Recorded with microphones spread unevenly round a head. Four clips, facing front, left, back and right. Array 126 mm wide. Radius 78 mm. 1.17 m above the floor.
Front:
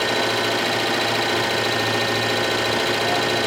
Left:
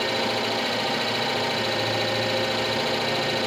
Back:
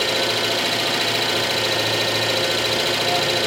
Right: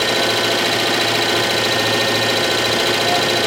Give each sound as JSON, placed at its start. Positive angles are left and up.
{"t": 0.0, "sound": "an engine running", "azimuth_deg": -90, "distance_m": 1.3}